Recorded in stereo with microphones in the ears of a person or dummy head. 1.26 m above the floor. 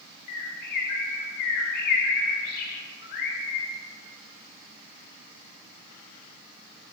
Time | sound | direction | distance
0.3 | a bird | 55° left (ahead or behind) | 0.8 m